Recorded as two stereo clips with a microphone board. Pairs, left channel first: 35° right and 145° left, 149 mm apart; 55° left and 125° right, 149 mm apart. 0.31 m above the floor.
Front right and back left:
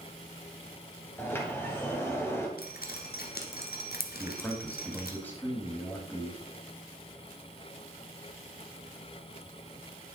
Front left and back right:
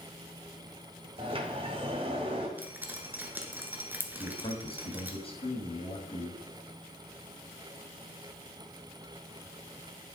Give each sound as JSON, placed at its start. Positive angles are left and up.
{"t": 1.2, "sound": "a sliding door", "azimuth_deg": -100, "distance_m": 1.6}
{"t": 2.6, "sound": "dripping", "azimuth_deg": -45, "distance_m": 1.2}
{"t": 4.2, "sound": "a man speaking", "azimuth_deg": 35, "distance_m": 1.7}